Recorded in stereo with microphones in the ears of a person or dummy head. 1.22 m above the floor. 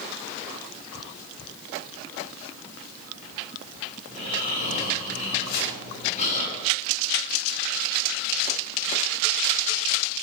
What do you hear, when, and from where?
4.1 s snoring: 40° left (ahead or behind), 9 m
5.5 s chopping: 65° left (ahead or behind), 6.5 m